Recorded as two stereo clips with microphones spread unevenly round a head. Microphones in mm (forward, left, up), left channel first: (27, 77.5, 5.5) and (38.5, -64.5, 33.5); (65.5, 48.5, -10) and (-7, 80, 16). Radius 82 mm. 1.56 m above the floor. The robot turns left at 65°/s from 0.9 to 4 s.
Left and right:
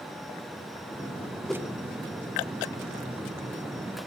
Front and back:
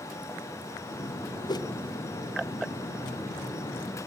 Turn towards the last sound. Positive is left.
turn(degrees=-155)